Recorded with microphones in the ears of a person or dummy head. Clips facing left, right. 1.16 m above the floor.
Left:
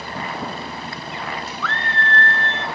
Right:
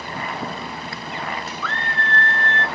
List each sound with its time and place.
1.6 s a scream: 55° left (ahead or behind), 0.9 m; by 2.6 s 75° left (ahead or behind), 1.3 m